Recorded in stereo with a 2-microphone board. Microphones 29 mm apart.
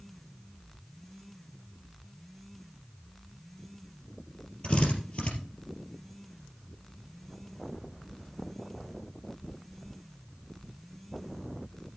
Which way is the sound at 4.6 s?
45° left (ahead or behind).